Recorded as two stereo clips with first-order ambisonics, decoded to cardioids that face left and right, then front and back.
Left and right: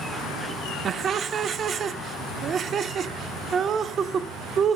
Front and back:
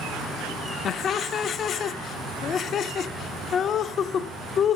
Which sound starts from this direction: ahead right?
Laughter, at 0.8 s.